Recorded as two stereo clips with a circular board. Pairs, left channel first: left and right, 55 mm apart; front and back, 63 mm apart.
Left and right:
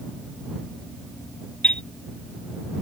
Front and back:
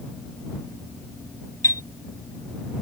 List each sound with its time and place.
1.6 s a chime: 20° left